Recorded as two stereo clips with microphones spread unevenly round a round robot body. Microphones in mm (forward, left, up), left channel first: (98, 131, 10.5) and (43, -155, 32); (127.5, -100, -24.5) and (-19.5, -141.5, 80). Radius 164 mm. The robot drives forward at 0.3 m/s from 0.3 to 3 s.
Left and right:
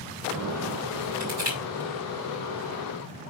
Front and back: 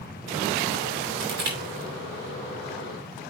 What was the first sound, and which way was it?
Crushing, 165° right.